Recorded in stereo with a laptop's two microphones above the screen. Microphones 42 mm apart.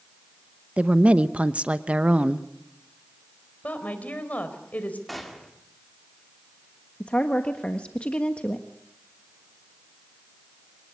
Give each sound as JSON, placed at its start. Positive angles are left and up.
{"t": 0.8, "sound": "a woman speaking", "side_deg": -30, "distance_m": 0.8}
{"t": 3.6, "sound": "a woman speaking", "side_deg": 40, "distance_m": 4.0}
{"t": 5.1, "sound": "a gunshot", "side_deg": 0, "distance_m": 2.0}
{"t": 7.0, "sound": "a woman speaking", "side_deg": 30, "distance_m": 1.5}